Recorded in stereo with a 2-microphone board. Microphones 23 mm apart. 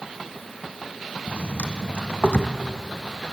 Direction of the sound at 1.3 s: 70° left (ahead or behind).